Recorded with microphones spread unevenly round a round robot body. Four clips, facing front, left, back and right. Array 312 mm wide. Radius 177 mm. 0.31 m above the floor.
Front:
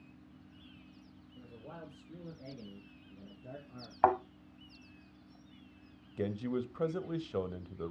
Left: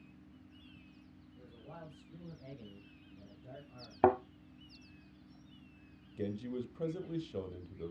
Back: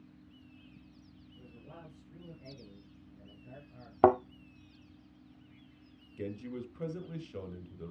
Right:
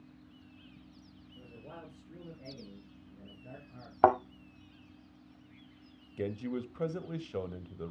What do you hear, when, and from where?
1.4 s a man speaking: 40° right, 6 m; by 3.9 s 15° right, 5 m
4.0 s a thud: 165° left, 0.6 m
6.2 s a man speaking: 30° right, 1.4 m